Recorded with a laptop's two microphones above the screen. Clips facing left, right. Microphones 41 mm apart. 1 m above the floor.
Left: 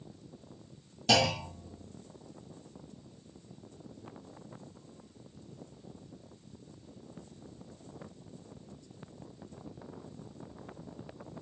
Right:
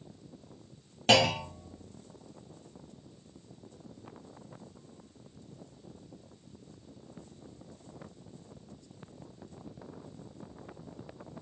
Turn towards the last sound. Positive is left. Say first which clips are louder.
# right 3 dB
turn(degrees=-35)  # may be behind; listen again after turning